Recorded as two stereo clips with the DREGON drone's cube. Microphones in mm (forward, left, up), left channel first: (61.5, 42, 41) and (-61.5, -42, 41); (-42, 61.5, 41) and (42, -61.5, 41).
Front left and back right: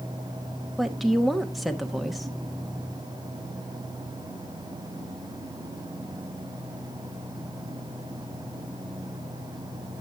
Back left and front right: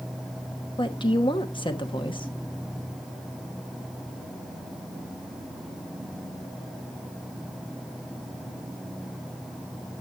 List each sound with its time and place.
0.8 s a woman speaking: 125° left, 1.2 m